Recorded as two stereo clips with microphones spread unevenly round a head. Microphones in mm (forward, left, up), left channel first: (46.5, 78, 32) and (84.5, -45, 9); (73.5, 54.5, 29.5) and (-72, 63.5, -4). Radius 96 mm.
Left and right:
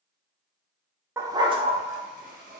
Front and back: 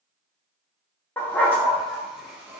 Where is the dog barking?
5° right, 0.5 m; by 2.6 s 85° right, 0.9 m.